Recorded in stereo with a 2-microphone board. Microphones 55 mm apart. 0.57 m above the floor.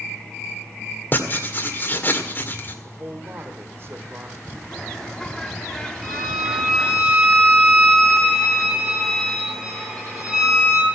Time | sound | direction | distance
1.1 | writing | 40° left (ahead or behind) | 1.9 m
2.8 | a man speaking | 50° right (ahead or behind) | 1.8 m
4.7 | a bird | 10° left (ahead or behind) | 1.0 m
6.0 | a violin | centre (ahead or behind) | 5.5 m